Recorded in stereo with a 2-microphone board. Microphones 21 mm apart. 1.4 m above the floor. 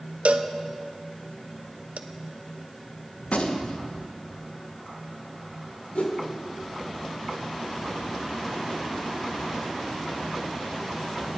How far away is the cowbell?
About 0.8 m.